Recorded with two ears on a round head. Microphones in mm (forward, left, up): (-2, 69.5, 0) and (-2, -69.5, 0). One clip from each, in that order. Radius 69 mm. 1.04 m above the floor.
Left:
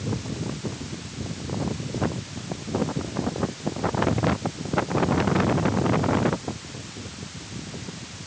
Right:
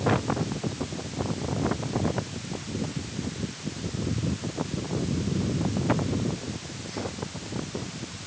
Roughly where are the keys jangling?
No keys jangling in this recording.